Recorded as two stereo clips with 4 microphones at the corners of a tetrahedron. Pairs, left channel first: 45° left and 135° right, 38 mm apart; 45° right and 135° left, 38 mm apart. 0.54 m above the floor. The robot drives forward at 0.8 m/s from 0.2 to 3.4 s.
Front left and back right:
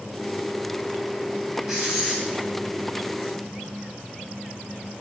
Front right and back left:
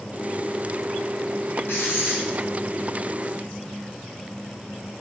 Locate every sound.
1.7 s writing: 50° right, 4.5 m; by 2.2 s 55° right, 4 m